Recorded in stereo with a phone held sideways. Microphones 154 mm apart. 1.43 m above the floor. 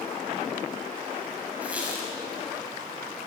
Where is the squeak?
10° right (ahead or behind), 6 m.